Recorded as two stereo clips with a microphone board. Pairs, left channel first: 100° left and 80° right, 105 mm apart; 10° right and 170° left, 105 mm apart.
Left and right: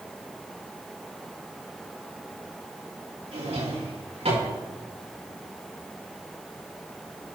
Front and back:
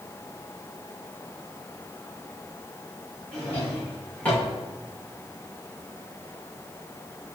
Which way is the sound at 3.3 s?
85° right.